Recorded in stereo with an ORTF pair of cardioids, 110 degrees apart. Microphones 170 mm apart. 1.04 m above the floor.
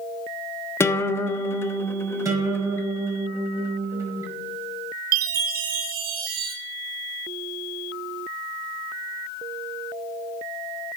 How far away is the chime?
About 1.6 m.